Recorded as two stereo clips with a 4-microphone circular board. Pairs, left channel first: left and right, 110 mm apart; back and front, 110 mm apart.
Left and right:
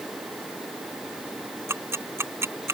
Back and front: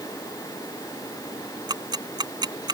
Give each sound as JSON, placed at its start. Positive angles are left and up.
{"t": 1.7, "sound": "ticking", "azimuth_deg": -30}